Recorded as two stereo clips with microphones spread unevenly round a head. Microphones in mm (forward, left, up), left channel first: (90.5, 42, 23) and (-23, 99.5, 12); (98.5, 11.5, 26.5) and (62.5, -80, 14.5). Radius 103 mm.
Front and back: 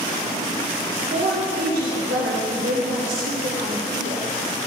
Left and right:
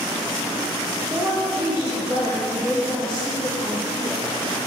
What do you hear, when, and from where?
1.1 s a woman speaking: 170° left, 1.6 m